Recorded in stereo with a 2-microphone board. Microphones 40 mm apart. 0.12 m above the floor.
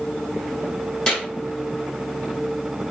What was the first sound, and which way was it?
A clap, 25° left (ahead or behind).